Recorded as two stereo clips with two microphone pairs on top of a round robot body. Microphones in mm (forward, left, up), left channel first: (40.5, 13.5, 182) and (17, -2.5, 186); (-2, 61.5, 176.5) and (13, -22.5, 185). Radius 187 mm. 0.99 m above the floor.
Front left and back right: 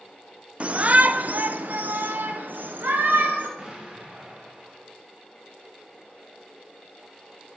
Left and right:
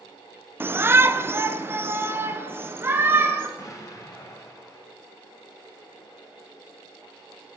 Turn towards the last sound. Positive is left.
turn(degrees=150)